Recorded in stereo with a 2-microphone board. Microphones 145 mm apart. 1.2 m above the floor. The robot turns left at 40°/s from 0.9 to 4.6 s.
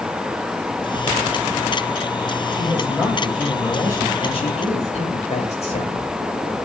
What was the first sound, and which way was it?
A man speaking, 150° right.